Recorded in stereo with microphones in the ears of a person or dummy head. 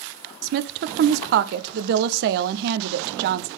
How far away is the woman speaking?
About 0.5 m.